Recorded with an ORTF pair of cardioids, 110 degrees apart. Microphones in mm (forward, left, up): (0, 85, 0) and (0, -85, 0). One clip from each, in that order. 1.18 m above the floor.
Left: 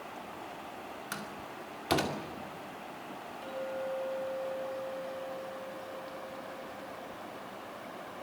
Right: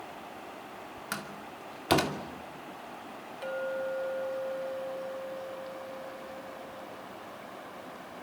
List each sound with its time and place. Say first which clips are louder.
1.1 s a door slam: right 4 dB; 25° right, 2.5 m
3.4 s a clink: right 4 dB; 50° right, 5 m